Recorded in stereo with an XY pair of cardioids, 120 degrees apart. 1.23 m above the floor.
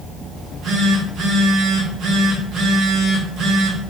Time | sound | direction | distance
0.3 | a phone buzzing | 60° right | 0.9 m